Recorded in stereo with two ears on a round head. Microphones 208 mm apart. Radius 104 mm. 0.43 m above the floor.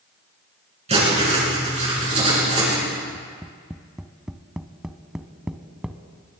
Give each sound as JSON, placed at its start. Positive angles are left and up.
{"t": 0.9, "sound": "writing", "side_deg": -30, "distance_m": 6.0}
{"t": 3.1, "sound": "tapping", "side_deg": -5, "distance_m": 0.6}